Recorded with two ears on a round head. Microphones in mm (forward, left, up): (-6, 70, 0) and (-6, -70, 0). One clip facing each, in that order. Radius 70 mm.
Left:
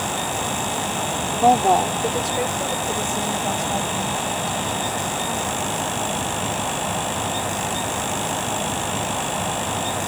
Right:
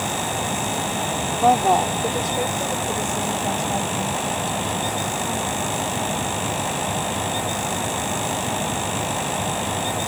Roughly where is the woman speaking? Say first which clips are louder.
Left 1 dB; centre.